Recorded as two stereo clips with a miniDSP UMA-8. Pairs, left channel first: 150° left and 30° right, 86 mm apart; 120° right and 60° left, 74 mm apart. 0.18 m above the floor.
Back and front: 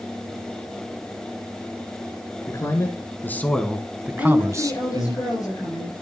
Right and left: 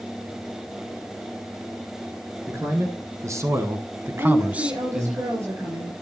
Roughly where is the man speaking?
Left.